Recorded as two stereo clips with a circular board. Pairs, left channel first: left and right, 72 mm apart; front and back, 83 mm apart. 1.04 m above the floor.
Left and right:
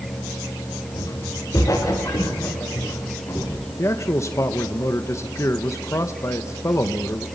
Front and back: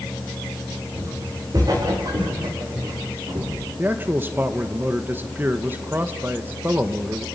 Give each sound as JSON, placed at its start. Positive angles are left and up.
{"t": 0.9, "sound": "footsteps", "azimuth_deg": 130, "distance_m": 8.5}
{"t": 3.8, "sound": "a man speaking", "azimuth_deg": 120, "distance_m": 1.2}